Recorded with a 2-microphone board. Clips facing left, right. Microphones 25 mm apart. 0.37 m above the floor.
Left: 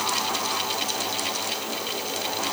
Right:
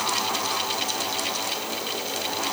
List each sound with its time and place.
Only background noise.